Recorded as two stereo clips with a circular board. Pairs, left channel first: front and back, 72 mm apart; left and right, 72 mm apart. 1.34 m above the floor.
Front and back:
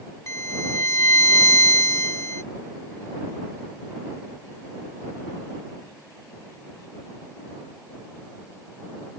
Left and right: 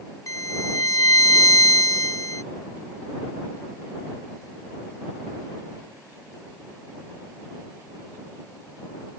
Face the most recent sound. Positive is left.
turn(degrees=50)